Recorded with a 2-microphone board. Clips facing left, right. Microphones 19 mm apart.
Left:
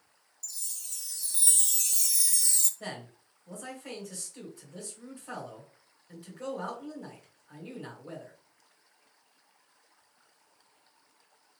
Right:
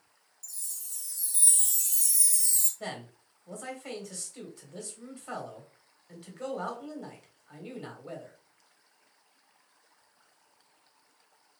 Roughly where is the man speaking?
Right.